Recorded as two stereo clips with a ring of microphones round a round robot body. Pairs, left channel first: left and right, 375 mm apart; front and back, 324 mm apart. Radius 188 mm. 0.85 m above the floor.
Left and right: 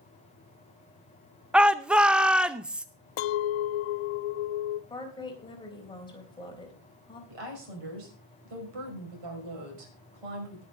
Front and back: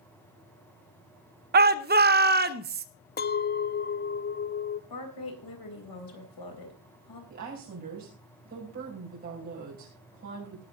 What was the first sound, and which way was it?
A shout, 175° right.